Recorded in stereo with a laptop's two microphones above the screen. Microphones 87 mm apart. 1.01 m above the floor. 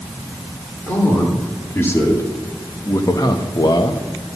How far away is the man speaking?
About 3 m.